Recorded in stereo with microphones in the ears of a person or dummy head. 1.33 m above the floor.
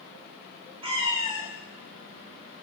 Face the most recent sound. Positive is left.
turn(degrees=-35)  # may be behind; listen again after turning